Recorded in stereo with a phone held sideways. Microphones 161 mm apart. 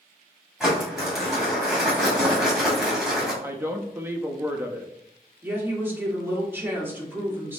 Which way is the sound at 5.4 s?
15° right (ahead or behind).